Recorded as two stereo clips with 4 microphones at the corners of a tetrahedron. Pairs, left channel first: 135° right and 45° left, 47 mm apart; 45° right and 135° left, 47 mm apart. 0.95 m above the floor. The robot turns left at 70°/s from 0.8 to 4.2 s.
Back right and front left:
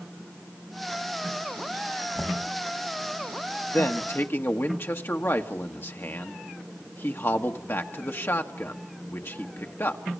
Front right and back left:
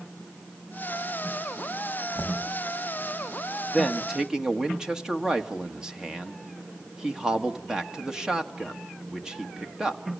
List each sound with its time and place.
2.1 s knocking: 45° right, 4 m; by 2.5 s 70° right, 4 m
3.7 s a man speaking: 120° right, 1.6 m; by 10.0 s 150° right, 1.6 m